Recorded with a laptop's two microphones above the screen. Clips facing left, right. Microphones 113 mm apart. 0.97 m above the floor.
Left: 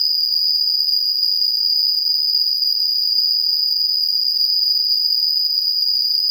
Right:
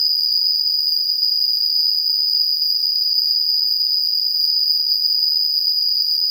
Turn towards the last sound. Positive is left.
turn(degrees=0)  # may be behind; listen again after turning